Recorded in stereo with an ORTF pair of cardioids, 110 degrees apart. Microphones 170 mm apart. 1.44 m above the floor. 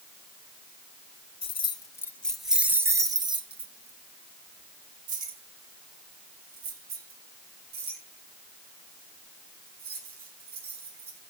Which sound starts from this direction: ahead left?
Keys jangling, at 1.4 s.